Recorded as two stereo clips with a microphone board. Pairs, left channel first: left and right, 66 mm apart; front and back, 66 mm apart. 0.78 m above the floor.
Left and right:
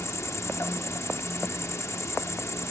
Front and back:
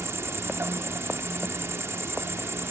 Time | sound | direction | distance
0.0 | an insect | 130° left | ?